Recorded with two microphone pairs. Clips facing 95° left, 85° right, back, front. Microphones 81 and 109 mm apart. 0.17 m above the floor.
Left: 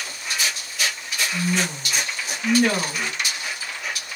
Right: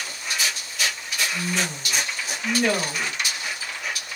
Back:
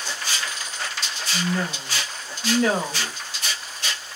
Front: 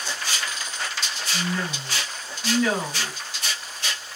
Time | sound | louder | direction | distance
1.3 | a woman speaking | left 5 dB, back 3 dB | 125° left | 2.5 m